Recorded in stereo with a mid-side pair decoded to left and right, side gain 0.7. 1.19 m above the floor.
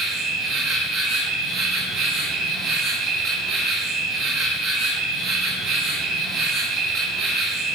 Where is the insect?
30° right, 3.5 m.